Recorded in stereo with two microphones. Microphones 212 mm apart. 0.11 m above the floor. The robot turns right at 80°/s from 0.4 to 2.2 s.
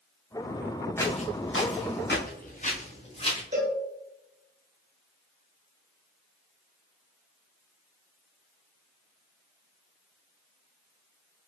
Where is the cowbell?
35° right (ahead or behind), 1.6 m.